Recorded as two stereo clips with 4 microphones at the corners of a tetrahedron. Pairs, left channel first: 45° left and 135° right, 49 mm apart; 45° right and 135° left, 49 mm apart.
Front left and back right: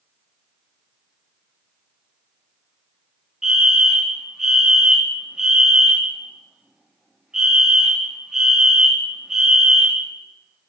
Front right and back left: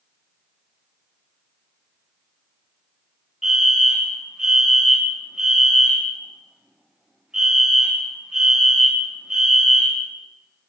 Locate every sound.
3.4 s a fire alarm: straight behind, 1.7 m